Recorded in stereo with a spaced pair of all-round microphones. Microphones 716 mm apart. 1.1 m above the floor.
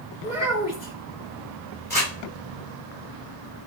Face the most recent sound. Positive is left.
turn(degrees=15)  # may be behind; listen again after turning